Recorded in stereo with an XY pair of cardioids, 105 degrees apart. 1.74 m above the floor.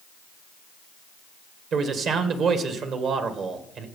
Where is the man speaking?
70° right, 1.9 m.